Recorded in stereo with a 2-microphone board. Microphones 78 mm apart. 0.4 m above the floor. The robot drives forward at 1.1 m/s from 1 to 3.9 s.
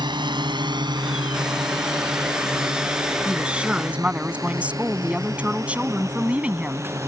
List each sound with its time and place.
0.0 s a drone: 65° right (ahead or behind); by 7.1 s 40° right (ahead or behind)
3.2 s a woman speaking: 15° right (ahead or behind)